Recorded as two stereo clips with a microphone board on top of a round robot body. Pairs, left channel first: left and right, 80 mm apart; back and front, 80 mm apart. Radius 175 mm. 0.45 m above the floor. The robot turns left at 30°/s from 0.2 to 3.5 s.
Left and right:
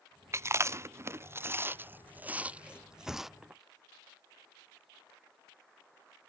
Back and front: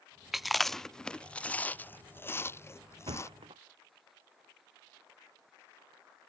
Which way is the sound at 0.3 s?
85° right.